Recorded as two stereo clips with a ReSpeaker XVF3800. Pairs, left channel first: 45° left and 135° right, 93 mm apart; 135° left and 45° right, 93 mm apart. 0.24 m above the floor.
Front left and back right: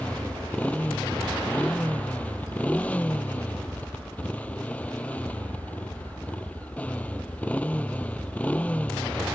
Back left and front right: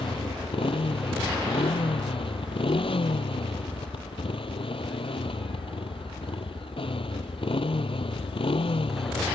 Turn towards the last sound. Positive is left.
turn(degrees=120)